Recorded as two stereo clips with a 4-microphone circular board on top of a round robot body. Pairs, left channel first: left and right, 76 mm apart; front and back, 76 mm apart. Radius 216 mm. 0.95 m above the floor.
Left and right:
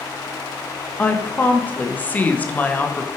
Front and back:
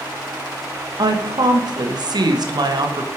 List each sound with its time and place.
1.0 s a woman speaking: 160° left, 1.9 m